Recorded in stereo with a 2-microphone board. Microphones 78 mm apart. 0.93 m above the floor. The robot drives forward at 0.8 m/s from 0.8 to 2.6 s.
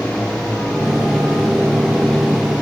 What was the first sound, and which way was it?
Only background noise.